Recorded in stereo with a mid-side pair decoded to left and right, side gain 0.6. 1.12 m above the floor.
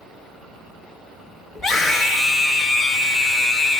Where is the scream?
35° left, 4.5 m.